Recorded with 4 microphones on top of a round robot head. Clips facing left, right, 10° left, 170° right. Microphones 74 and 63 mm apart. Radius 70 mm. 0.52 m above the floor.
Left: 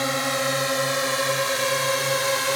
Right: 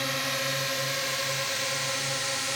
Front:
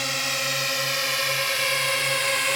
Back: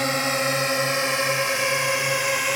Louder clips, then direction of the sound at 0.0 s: Left 7 dB, back 5 dB; 140° left.